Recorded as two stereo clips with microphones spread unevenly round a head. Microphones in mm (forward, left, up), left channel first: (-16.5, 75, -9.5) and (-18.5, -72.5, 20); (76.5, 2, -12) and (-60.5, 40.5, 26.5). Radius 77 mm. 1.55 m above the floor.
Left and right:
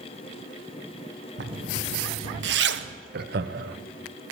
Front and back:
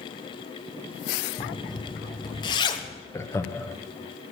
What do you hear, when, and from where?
1.4 s a zipper: 80° right, 1.0 m
3.1 s laughter: 95° right, 1.0 m